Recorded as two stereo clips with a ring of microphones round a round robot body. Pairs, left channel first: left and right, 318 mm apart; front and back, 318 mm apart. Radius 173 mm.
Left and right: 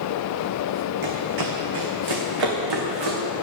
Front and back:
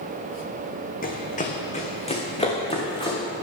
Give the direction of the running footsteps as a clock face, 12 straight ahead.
2 o'clock.